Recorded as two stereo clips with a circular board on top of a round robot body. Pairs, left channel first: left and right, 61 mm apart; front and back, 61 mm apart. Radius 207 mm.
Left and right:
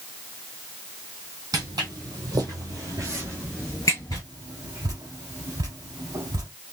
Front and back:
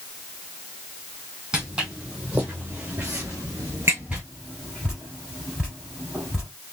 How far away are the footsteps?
About 1.9 m.